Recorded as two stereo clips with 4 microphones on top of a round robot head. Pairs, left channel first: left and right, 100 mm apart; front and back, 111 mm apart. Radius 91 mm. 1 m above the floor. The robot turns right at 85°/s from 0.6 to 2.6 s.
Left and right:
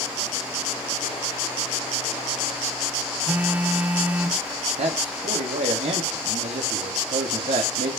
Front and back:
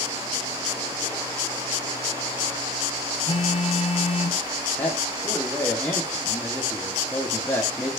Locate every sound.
3.3 s a phone buzzing: 15° right, 1.0 m
4.8 s a man speaking: 80° right, 1.5 m